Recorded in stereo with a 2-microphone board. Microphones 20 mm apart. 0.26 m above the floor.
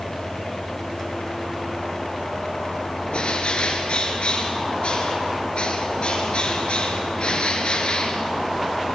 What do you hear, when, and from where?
3.1 s a bird: 70° left (ahead or behind), 3.5 m